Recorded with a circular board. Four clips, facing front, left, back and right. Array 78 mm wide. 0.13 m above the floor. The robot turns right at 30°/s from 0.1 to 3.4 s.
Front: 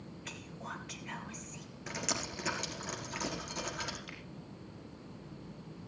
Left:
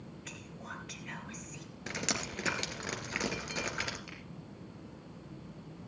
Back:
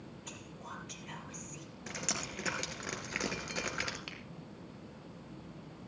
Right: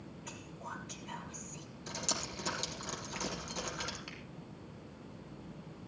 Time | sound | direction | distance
0.2 | whispering | 35° left | 3 m
1.9 | dripping | 80° left | 2.5 m
4.1 | a finger snap | 165° right | 3 m